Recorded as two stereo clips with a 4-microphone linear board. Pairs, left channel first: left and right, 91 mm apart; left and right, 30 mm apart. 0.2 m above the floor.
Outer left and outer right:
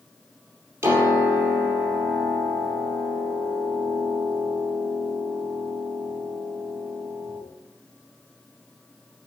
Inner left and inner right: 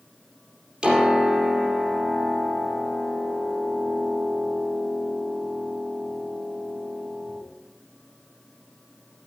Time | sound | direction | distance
0.8 | a piano | 25° right (ahead or behind) | 4 m